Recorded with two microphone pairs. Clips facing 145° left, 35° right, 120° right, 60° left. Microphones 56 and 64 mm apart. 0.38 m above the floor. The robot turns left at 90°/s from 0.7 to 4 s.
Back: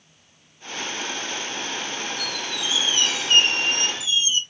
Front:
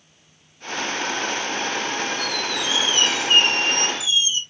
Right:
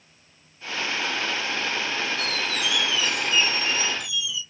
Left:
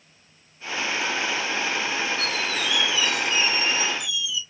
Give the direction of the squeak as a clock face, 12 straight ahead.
12 o'clock.